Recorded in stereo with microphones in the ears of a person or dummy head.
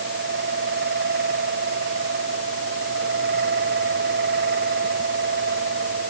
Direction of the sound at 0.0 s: 55° right (ahead or behind).